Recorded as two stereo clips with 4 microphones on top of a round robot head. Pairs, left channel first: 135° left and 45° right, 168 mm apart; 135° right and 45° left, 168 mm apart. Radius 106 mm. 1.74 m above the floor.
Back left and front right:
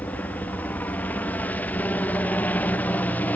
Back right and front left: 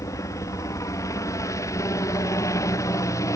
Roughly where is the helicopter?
Behind.